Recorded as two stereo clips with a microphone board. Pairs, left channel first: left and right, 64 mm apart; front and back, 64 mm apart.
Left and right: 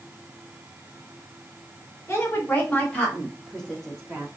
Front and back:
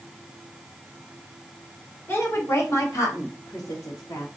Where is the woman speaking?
50° left, 1.4 m; by 4.3 s 5° right, 2.0 m.